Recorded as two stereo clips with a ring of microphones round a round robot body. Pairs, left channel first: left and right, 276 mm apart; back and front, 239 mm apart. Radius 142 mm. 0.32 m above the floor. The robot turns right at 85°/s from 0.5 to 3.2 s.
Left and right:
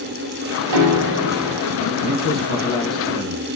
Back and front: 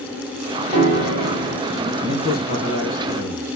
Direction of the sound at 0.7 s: 75° right.